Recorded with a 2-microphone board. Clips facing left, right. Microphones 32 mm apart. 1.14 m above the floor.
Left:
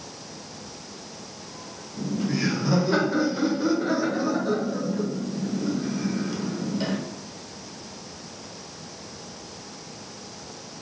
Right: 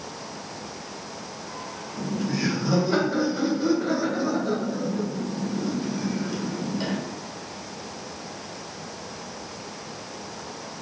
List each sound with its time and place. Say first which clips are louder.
2.0 s laughter: left 1 dB; 5° left (ahead or behind), 0.9 m